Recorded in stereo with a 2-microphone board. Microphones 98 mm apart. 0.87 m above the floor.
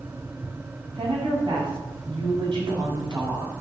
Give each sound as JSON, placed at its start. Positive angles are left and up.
{"t": 0.9, "sound": "a woman speaking", "side_deg": -60, "distance_m": 6.5}